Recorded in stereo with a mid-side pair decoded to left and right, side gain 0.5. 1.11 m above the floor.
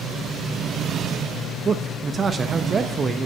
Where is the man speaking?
35° right, 0.8 m.